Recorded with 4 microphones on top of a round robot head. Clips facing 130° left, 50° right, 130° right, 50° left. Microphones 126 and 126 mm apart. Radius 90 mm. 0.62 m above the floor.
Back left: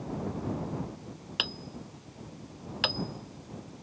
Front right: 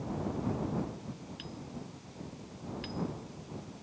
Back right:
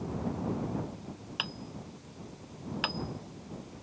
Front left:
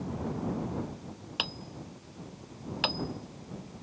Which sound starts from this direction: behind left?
Hammering, at 1.4 s.